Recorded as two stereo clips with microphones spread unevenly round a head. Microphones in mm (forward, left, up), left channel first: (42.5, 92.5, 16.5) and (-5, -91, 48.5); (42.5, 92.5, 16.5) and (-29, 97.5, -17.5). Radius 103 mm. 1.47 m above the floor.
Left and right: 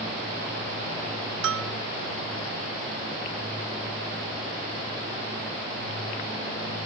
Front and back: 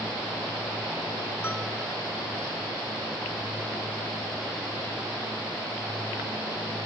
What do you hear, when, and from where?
1.4 s a bell: 90° right, 0.8 m